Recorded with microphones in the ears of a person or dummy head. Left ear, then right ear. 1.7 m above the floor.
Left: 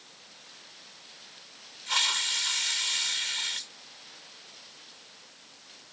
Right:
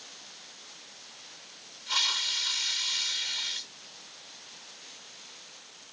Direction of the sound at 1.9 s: 15° left (ahead or behind).